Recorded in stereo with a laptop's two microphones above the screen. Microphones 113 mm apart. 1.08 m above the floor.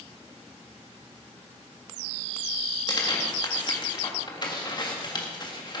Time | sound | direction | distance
2.9 | tearing paper | 40° left (ahead or behind) | 1.6 m